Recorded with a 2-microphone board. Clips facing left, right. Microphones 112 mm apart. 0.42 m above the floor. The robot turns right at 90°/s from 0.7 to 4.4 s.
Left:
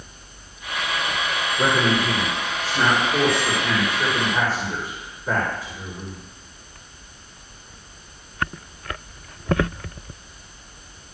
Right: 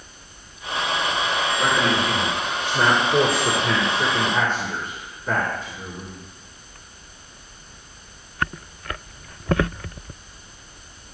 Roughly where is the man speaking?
Left.